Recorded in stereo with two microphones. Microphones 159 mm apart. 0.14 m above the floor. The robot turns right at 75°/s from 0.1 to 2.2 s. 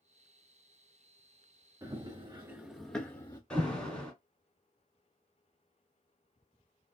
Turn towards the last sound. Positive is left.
turn(degrees=5)  # may be behind; listen again after turning